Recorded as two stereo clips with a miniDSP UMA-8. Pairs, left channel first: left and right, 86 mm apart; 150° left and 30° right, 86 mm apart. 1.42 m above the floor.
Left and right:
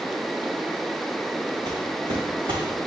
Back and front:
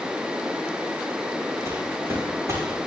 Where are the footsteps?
75° right, 6 m.